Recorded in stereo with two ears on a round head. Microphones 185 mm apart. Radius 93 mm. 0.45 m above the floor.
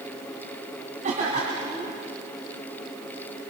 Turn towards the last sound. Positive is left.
turn(degrees=-35)  # may be behind; listen again after turning